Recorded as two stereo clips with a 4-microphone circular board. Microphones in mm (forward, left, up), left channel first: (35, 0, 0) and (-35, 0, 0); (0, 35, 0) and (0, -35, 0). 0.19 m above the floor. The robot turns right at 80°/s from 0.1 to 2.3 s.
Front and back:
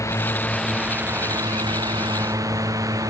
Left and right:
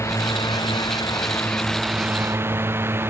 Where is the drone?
45° left; by 3.1 s 145° right.